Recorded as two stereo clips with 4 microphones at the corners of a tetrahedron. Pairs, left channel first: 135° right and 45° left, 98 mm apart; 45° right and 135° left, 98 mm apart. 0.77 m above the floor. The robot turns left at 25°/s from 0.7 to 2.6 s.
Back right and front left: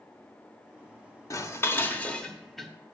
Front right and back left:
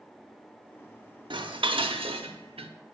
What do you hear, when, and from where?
1.3 s dishes clattering: 170° left, 0.8 m; by 2.7 s 135° left, 0.8 m